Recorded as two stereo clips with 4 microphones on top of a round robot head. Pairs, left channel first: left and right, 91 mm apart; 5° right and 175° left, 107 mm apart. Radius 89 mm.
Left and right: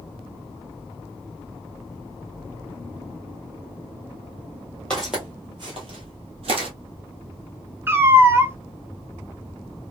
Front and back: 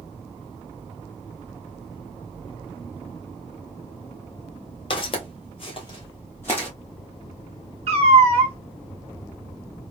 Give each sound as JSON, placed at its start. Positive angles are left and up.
{"t": 4.9, "sound": "footsteps", "azimuth_deg": 10, "distance_m": 0.8}
{"t": 7.9, "sound": "a cat meowing", "azimuth_deg": -155, "distance_m": 0.8}